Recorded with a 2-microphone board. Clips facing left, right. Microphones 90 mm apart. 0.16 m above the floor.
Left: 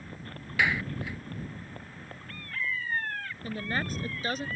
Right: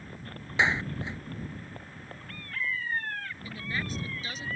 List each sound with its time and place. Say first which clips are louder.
0.6 s a clap: right 1 dB; 25° right (ahead or behind)
3.4 s a woman speaking: left 5 dB; 50° left (ahead or behind)